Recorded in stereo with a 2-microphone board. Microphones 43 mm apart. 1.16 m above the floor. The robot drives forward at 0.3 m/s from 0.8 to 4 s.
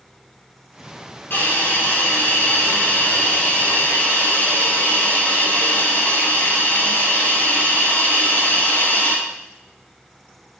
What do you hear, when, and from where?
1.3 s a hiss: 55° left (ahead or behind), 4 m; by 9.2 s 50° left (ahead or behind), 4.5 m